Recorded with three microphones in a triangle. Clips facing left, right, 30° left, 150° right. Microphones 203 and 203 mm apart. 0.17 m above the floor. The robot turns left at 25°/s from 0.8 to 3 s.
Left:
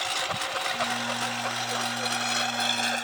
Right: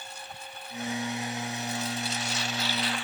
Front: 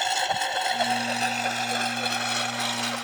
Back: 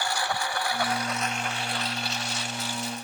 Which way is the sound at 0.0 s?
95° left.